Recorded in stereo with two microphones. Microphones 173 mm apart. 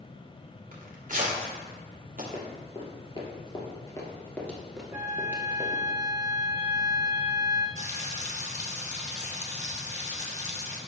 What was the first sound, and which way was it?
Tearing paper, 50° right (ahead or behind).